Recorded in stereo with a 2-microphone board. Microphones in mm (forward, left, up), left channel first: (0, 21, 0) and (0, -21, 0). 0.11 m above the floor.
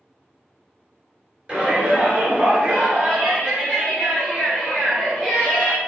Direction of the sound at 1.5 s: 25° right (ahead or behind).